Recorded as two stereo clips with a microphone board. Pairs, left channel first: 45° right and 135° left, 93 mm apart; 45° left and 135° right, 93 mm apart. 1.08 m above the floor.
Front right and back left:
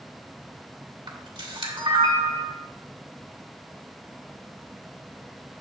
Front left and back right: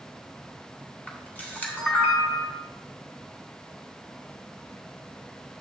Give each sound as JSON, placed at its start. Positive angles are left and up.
{"t": 1.1, "sound": "a camera shutter", "azimuth_deg": 115, "distance_m": 1.8}